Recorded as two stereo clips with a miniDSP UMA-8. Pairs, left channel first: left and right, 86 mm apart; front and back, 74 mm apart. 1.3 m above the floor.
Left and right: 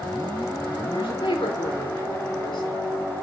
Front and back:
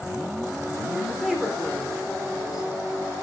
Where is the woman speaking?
95° left, 4 m.